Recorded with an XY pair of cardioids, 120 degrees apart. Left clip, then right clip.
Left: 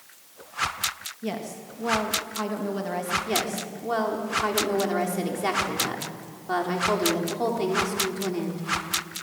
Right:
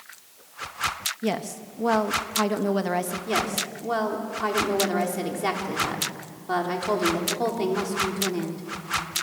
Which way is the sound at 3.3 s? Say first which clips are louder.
Right 2 dB; 5° right.